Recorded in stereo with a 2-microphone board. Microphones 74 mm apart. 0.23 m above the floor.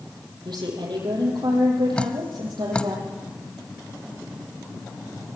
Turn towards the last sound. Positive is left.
turn(degrees=15)  # may be behind; listen again after turning